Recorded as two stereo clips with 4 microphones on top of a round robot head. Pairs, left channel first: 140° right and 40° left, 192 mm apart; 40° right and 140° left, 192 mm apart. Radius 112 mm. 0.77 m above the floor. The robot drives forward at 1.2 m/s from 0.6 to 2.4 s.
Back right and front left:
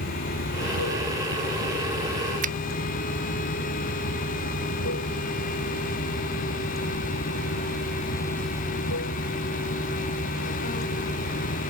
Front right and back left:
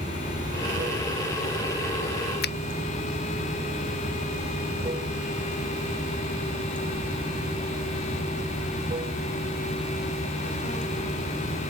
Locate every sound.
0.0 s running water: 155° right
2.4 s a finger snap: 5° right